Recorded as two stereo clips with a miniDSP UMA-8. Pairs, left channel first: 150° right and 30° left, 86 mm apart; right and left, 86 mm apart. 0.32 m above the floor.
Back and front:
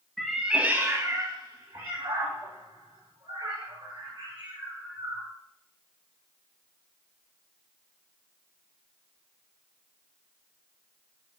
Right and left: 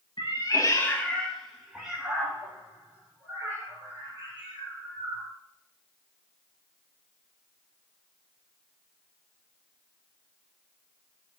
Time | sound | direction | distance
0.2 | a cat meowing | 65° right | 0.6 m